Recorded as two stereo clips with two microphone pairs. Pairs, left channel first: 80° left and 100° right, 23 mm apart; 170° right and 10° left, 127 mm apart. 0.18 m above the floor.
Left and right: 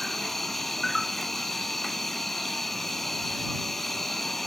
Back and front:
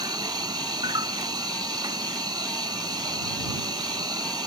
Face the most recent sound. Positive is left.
turn(degrees=20)